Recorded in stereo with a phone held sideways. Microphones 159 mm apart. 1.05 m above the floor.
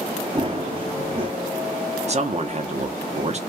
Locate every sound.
0.3 s running footsteps: 35° right (ahead or behind), 1.2 m
2.1 s a man speaking: 45° right (ahead or behind), 0.8 m